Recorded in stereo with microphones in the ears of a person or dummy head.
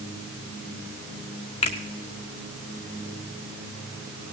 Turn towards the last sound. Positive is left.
turn(degrees=25)  # may be behind; listen again after turning